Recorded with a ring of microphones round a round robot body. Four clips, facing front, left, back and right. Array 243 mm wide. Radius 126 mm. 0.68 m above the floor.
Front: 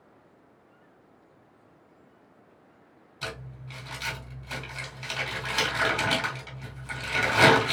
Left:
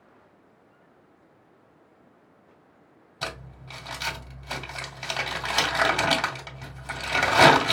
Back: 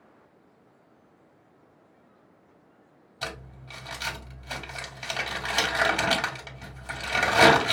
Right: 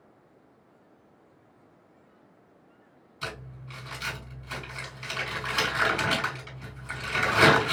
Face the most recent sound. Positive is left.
turn(degrees=120)